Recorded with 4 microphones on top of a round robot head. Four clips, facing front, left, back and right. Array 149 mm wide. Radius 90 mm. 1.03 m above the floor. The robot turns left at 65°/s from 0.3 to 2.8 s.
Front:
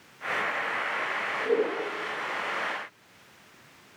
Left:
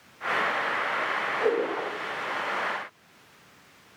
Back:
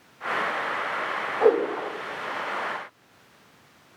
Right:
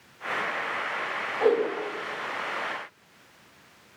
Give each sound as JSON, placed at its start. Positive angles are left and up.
{"t": 1.4, "sound": "a whoosh", "azimuth_deg": -160, "distance_m": 4.5}